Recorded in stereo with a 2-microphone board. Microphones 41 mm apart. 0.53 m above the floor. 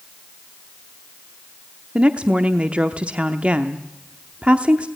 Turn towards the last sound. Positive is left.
turn(degrees=-30)  # may be behind; listen again after turning